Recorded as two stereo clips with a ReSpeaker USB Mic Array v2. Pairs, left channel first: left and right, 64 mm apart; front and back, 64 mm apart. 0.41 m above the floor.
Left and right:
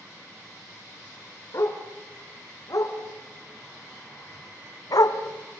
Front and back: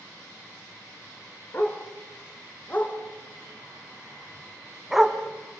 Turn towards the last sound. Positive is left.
turn(degrees=110)